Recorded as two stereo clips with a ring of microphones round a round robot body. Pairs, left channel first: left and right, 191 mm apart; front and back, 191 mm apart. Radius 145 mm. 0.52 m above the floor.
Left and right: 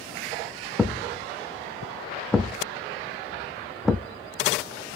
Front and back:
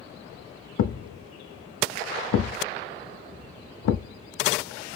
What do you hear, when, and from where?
0.8 s a thud: straight ahead, 0.5 m